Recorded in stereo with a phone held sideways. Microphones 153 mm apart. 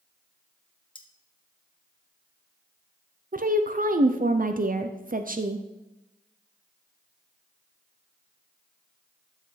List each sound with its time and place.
0.9 s cutlery clinking: 35° left (ahead or behind), 0.9 m
3.3 s a woman speaking: 65° right (ahead or behind), 0.5 m